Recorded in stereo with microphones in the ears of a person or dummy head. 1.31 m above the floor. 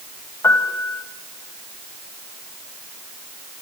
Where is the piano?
15° left (ahead or behind), 2 m.